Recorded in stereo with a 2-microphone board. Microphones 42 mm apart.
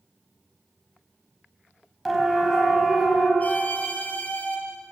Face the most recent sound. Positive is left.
turn(degrees=35)  # may be behind; listen again after turning